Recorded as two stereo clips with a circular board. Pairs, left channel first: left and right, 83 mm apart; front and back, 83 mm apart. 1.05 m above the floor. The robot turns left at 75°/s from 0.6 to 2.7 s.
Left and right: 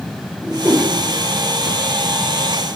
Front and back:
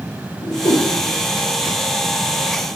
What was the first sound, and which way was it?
A whoosh, 5° right.